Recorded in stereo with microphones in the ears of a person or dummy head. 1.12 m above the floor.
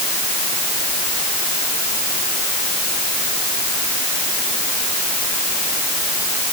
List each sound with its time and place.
Only background noise.